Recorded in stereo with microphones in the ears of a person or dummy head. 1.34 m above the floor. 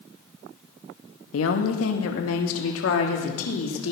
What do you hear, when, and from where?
1.3 s a woman speaking: 80° left, 1.6 m